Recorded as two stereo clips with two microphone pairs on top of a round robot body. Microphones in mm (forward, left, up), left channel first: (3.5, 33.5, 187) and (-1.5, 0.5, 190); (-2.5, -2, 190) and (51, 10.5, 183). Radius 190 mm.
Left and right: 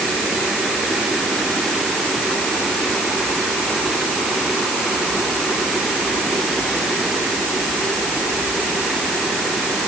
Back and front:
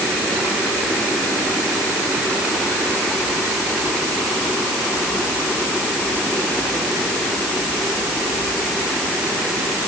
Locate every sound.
Only background noise.